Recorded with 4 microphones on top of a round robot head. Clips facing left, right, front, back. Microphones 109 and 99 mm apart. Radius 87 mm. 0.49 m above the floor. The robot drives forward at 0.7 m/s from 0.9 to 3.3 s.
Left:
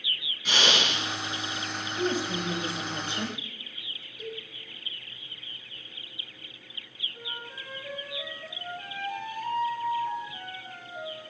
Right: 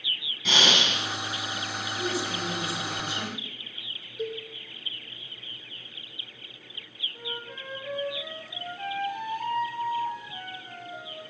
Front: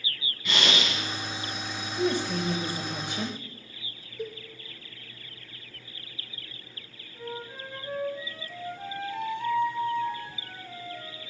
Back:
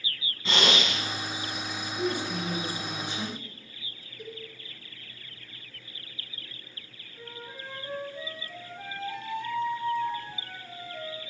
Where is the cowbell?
45° right, 2.5 m.